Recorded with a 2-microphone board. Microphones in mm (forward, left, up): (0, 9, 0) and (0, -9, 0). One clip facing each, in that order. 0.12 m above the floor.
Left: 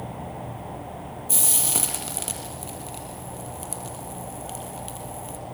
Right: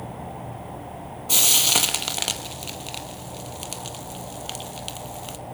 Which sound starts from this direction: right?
Frying, at 1.3 s.